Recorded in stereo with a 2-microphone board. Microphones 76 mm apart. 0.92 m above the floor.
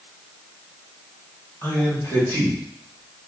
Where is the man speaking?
40° left (ahead or behind), 2 m; by 3.3 s 55° left (ahead or behind), 3 m.